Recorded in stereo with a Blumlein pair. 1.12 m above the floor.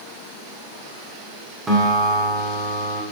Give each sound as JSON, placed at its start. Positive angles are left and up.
{"t": 1.7, "sound": "a guitar", "azimuth_deg": -20, "distance_m": 2.5}